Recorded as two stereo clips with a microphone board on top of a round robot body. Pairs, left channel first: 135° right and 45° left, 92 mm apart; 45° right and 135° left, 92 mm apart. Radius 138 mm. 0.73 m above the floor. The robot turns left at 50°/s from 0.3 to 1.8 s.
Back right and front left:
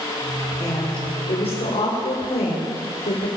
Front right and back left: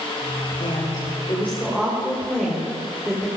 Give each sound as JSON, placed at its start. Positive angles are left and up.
{"t": 0.6, "sound": "a woman speaking", "azimuth_deg": -70, "distance_m": 4.0}